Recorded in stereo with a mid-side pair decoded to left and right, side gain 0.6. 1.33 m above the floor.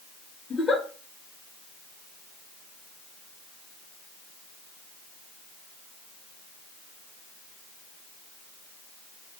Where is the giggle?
20° left, 1.2 m.